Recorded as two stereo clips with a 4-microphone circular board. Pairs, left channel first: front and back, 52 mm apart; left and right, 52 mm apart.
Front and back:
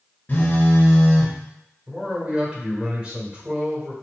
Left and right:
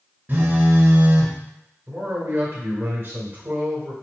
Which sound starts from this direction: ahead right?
A phone buzzing, at 0.3 s.